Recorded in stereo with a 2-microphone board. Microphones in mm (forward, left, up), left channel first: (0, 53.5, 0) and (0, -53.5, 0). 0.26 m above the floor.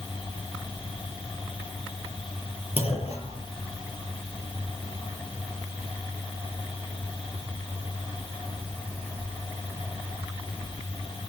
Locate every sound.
2.8 s a clunk: 65° left (ahead or behind), 5.5 m